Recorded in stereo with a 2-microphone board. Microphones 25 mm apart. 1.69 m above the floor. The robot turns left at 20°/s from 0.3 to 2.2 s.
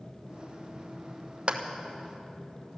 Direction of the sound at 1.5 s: 45° right (ahead or behind).